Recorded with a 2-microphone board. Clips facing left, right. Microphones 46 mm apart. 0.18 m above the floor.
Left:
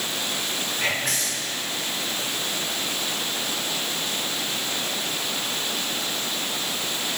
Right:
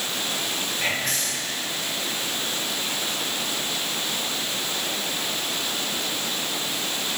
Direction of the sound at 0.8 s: 10° left (ahead or behind).